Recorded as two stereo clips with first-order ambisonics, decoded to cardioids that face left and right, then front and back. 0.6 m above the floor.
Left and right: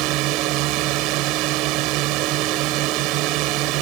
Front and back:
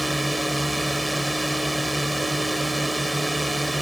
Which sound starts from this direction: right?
A drone, at 0.0 s.